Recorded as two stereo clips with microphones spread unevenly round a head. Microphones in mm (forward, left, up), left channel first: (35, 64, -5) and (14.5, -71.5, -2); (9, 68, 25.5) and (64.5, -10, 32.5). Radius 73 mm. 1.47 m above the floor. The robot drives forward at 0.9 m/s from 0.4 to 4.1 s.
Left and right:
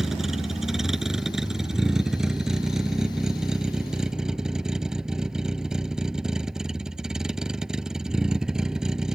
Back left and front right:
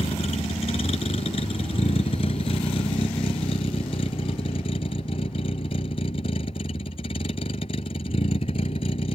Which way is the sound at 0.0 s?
175° left.